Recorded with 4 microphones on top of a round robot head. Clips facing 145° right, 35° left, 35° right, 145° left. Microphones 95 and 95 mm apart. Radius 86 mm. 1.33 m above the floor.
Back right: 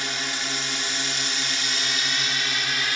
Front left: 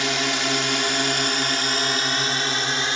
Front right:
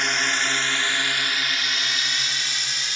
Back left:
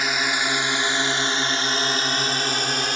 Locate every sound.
0.0 s a drone: 60° left; by 3.0 s 100° left